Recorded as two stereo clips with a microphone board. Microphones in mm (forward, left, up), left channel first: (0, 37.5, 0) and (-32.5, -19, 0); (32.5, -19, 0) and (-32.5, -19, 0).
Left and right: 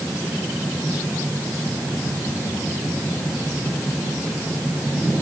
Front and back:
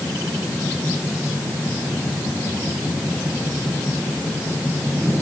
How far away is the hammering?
I don't hear hammering.